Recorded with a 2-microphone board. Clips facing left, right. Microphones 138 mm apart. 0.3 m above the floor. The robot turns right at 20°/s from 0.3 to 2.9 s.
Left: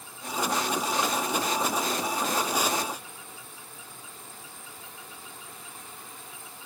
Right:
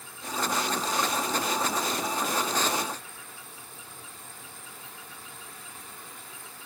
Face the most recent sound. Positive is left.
No sound to turn to.